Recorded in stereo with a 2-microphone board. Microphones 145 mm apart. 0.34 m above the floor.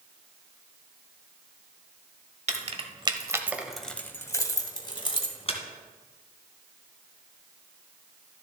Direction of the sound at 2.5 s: 50° right (ahead or behind).